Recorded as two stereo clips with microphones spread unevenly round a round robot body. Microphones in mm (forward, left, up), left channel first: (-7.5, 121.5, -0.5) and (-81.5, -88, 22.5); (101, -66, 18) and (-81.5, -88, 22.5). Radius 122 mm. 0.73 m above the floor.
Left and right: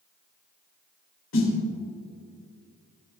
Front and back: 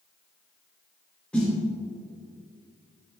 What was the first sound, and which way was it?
A snare drum, 90° left.